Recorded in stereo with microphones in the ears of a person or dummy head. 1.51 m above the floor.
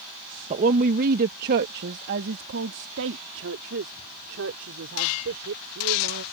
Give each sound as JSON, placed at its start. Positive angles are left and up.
{"t": 0.5, "sound": "a woman speaking", "side_deg": -45}